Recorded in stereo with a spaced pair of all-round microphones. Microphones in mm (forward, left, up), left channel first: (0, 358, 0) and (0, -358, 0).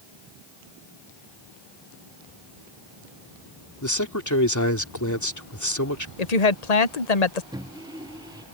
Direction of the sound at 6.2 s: 60° left (ahead or behind).